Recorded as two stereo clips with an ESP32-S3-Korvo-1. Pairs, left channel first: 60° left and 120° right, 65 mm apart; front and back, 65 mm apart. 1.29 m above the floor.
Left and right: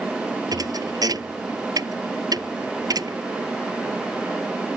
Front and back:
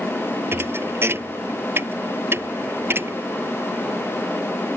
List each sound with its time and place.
0.5 s a thud: 130° right